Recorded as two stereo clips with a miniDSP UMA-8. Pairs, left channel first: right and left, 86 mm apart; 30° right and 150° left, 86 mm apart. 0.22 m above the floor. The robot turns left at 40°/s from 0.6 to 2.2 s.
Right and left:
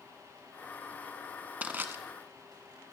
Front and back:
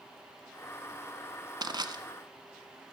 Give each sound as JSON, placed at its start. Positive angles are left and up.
{"t": 1.6, "sound": "crushing", "azimuth_deg": 155, "distance_m": 1.1}